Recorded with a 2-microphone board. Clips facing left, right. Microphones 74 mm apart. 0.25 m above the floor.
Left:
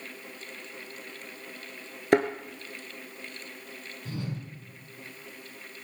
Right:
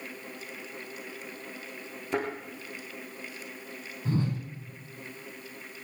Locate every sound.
2.1 s a thud: 75° left (ahead or behind), 1.6 m
4.0 s a whoosh: 35° right (ahead or behind), 4.5 m